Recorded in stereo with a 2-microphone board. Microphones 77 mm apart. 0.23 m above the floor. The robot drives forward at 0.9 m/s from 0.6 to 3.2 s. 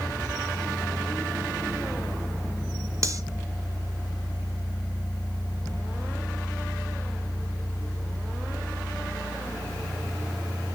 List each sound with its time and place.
3.0 s cutlery clinking: 40° right (ahead or behind), 1.2 m; by 3.2 s 45° right (ahead or behind), 1.1 m